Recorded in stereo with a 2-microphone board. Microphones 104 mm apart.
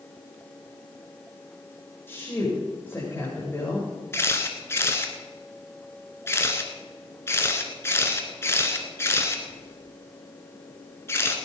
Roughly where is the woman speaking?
Left.